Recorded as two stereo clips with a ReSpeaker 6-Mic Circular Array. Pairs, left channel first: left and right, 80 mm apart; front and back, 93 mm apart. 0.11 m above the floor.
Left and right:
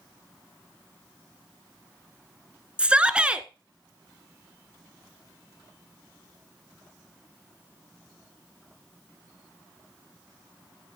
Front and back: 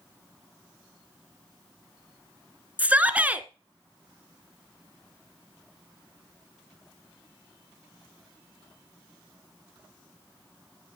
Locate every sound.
2.8 s a shout: 140° right, 1.1 m